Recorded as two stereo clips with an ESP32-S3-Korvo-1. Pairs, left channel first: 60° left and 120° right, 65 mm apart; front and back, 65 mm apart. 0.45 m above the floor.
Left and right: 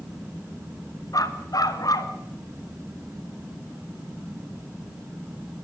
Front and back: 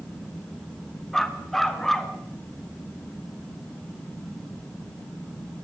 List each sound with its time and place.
1.1 s a dog barking: 85° left, 2 m